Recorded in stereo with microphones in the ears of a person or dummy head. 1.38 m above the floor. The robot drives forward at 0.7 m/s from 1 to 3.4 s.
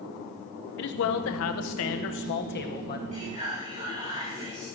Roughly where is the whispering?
Right.